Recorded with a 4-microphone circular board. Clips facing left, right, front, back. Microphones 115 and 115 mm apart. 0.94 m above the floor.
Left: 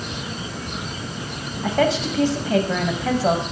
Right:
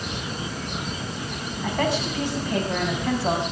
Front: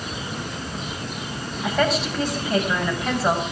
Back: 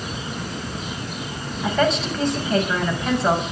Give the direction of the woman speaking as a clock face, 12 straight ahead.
9 o'clock.